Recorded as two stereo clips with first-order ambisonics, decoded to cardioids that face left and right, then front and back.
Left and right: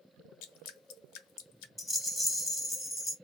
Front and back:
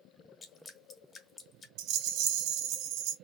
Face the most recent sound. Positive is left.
turn(degrees=170)